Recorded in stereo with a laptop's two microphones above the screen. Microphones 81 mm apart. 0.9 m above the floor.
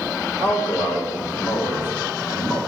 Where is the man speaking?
25° right (ahead or behind), 2.5 m.